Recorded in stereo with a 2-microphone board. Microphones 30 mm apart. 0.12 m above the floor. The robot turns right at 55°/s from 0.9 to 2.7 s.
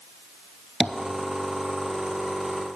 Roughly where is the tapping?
Right.